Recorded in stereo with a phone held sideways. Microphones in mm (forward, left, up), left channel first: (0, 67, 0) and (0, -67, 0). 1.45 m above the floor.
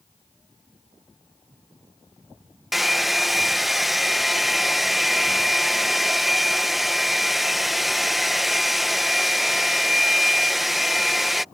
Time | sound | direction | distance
2.7 | a hair dryer | centre (ahead or behind) | ?